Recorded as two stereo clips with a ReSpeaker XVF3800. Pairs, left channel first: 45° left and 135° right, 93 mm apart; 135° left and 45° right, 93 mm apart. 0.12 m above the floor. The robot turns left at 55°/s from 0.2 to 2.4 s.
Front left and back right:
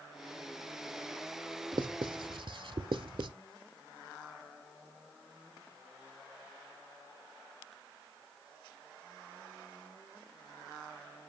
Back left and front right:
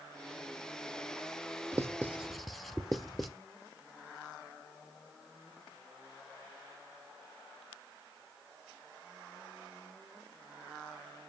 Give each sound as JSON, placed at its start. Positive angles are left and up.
{"t": 1.7, "sound": "writing", "azimuth_deg": -100, "distance_m": 0.5}